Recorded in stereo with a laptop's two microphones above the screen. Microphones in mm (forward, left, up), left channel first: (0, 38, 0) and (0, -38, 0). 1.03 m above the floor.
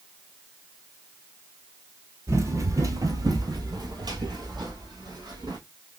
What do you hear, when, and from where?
2.3 s running footsteps: 40° right (ahead or behind), 1.6 m; by 5.6 s 65° right (ahead or behind), 3 m